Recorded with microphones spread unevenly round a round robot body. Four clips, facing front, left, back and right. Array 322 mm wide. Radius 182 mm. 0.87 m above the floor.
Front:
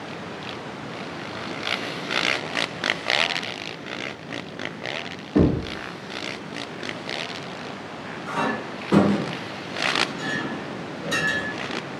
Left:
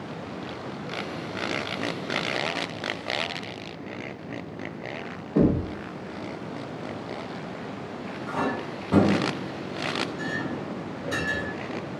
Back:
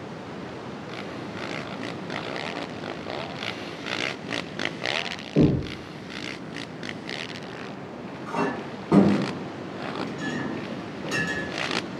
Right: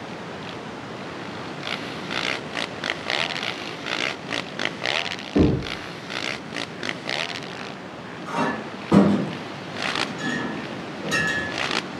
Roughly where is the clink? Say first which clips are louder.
Right 3 dB, front 1 dB; behind right.